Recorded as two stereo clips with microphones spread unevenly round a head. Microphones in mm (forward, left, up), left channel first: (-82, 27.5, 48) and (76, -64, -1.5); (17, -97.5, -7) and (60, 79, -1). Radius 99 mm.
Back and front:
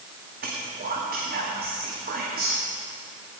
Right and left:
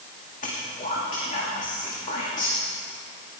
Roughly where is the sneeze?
I don't hear a sneeze.